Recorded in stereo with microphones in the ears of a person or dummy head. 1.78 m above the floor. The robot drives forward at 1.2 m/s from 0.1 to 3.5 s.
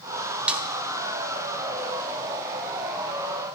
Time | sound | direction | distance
0.5 | a snare drum | 5° right (ahead or behind) | 1.1 m